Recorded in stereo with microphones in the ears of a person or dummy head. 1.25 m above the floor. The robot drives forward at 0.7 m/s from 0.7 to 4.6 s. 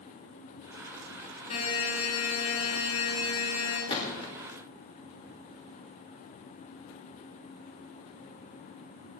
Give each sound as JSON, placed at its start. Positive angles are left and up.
{"t": 1.5, "sound": "a buzzer", "side_deg": 40, "distance_m": 5.5}
{"t": 3.9, "sound": "a gunshot", "side_deg": 30, "distance_m": 2.5}